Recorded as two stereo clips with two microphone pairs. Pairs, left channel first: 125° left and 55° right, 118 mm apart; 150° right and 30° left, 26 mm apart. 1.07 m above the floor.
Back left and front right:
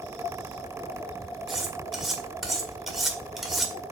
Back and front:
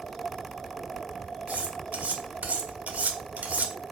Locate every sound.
1.5 s cutlery clinking: 35° left, 1.9 m